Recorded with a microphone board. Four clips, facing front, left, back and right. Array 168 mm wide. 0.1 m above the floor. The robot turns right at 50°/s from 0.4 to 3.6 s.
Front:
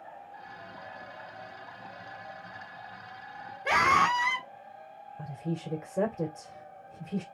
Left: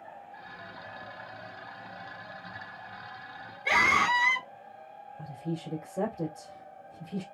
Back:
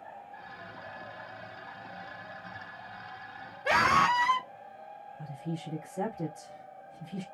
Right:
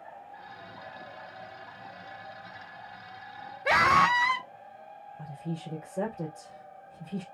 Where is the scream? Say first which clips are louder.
Right 3 dB, even; 90° right, 1.8 m.